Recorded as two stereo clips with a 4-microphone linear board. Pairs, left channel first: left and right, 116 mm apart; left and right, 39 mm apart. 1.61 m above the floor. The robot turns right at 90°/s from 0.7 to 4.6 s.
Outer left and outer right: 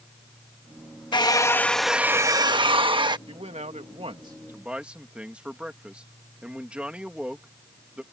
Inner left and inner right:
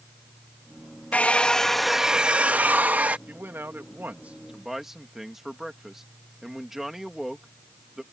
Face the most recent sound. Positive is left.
turn(degrees=-10)